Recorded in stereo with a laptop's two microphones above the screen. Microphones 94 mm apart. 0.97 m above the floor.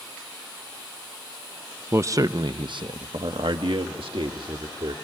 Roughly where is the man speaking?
Right.